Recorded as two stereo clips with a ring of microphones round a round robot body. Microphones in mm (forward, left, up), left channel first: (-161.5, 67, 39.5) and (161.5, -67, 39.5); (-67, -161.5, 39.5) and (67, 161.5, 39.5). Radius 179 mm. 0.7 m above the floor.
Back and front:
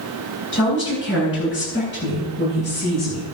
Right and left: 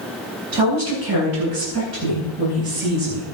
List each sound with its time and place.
0.5 s a woman speaking: 100° left, 8 m; by 3.2 s 95° left, 9.5 m